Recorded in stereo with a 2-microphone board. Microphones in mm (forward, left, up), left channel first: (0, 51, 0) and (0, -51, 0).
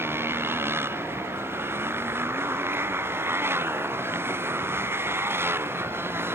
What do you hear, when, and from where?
0.0 s a motorcycle: 25° right (ahead or behind)